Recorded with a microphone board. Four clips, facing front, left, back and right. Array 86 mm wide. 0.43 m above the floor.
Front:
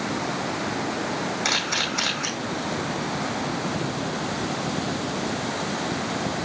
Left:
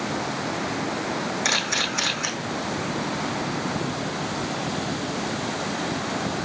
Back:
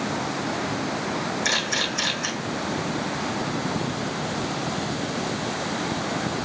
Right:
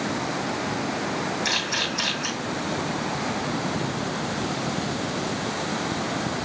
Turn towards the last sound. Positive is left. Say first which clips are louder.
# left 1 dB, even
turn(degrees=40)